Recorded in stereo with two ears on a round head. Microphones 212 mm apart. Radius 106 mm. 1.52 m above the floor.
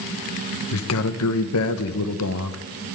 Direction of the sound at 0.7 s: 65° left (ahead or behind).